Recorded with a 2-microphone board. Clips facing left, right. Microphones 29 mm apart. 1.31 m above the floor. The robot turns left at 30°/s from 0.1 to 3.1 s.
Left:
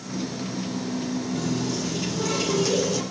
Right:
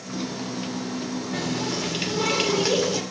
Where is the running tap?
100° right, 2.5 m; by 3.0 s 150° right, 2.5 m.